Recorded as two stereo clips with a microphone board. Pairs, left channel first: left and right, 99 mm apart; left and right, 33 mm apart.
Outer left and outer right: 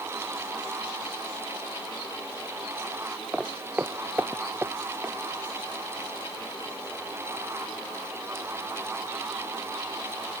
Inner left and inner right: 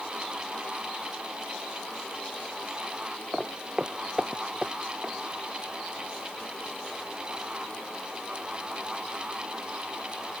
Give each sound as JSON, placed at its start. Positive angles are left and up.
{"t": 3.3, "sound": "footsteps", "side_deg": -10}